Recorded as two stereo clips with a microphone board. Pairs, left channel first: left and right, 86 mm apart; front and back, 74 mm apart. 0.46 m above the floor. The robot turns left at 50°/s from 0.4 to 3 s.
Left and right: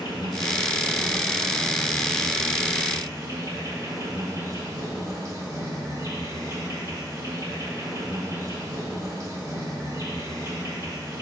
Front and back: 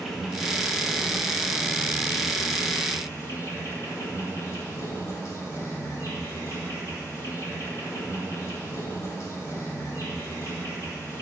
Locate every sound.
0.0 s an insect: 85° left, 2.0 m; by 11.2 s 45° right, 2.0 m